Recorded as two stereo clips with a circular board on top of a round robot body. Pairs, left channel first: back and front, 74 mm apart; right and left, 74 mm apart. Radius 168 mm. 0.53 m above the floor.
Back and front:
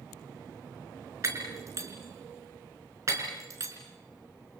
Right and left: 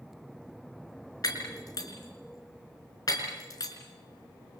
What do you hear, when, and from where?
1.2 s breaking glass: 50° right, 4.5 m